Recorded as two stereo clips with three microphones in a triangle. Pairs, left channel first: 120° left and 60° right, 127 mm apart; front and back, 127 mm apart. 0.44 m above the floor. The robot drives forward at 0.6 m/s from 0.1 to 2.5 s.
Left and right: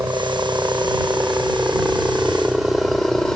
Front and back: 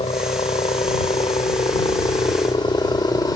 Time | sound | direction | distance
0.0 | a helicopter | straight ahead | ?